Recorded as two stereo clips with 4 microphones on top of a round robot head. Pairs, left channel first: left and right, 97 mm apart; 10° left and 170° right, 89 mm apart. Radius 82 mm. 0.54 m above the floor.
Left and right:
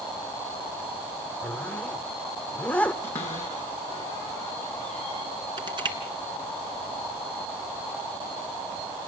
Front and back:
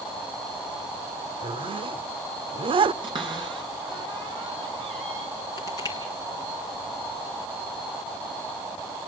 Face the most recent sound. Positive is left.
turn(degrees=-50)